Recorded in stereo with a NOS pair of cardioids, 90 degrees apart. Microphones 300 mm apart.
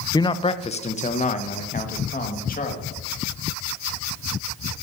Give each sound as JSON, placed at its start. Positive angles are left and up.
{"t": 0.1, "sound": "a man speaking", "azimuth_deg": 15, "distance_m": 0.5}